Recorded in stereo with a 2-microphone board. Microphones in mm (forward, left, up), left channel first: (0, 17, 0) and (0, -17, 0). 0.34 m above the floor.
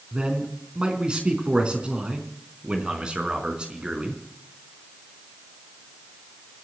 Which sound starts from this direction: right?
A man speaking, at 0.1 s.